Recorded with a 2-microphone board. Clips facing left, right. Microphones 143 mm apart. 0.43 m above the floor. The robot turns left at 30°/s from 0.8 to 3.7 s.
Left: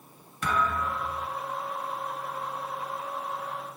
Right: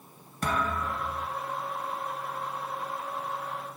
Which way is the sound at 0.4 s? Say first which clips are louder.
Left 1 dB; 35° right (ahead or behind).